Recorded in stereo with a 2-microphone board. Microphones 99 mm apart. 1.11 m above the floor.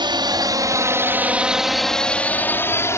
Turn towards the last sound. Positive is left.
turn(degrees=30)  # may be behind; listen again after turning